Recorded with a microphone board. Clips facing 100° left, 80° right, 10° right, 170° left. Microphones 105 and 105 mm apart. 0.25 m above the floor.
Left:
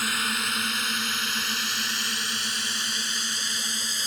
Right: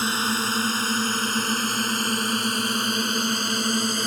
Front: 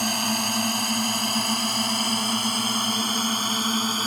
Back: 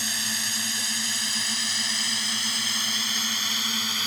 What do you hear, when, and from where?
0.0 s a drone: 25° right; by 4.1 s 55° right